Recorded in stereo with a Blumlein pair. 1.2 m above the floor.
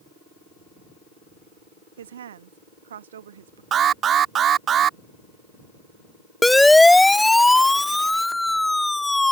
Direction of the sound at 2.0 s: 65° right.